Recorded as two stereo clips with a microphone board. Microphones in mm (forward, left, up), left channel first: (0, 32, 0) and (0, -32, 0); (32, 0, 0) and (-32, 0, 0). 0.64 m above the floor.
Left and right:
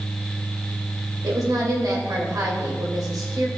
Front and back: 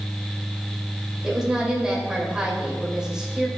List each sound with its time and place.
1.2 s a woman speaking: 100° right, 2.5 m